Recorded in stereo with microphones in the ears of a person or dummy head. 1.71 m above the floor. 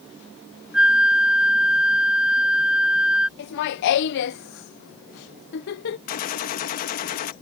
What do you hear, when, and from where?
0.7 s a flute: centre (ahead or behind)
3.4 s laughter: 60° left (ahead or behind)
6.1 s a gunshot: 45° left (ahead or behind)